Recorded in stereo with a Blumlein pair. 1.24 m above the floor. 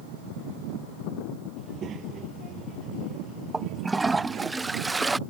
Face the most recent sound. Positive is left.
turn(degrees=-10)